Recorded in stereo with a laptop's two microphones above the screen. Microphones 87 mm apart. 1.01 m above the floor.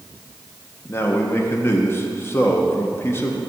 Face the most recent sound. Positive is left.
turn(degrees=25)  # may be behind; listen again after turning